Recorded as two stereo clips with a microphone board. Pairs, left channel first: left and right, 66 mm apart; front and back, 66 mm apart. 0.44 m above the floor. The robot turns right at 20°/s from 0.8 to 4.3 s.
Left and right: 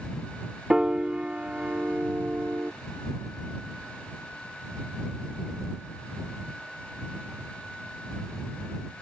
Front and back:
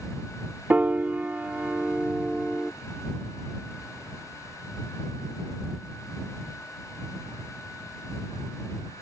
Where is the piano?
150° right; by 2.7 s 115° right.